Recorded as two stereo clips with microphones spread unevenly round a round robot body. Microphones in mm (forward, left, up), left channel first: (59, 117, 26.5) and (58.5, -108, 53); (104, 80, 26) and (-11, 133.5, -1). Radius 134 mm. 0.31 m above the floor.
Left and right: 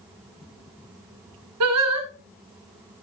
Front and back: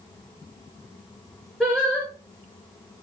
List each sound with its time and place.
1.6 s singing: 115° right, 1.5 m